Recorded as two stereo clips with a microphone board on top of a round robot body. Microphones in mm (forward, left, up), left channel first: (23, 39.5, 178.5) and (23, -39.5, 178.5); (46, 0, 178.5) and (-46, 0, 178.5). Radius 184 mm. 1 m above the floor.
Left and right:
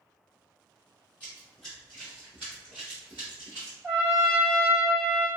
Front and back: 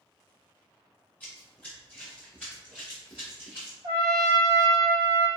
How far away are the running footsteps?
About 1.3 m.